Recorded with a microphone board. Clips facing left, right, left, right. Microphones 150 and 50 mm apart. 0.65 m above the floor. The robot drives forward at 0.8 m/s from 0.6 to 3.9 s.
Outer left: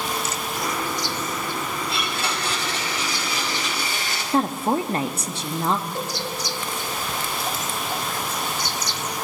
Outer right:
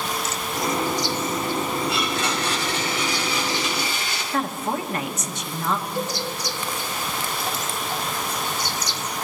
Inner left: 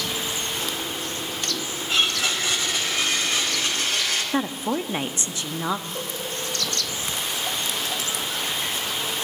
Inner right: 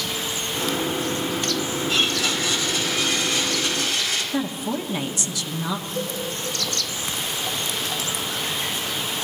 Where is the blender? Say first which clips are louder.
Outer right 3 dB, inner left 1 dB; 35° left (ahead or behind), 4.5 m; by 4.2 s 45° left (ahead or behind), 3.5 m.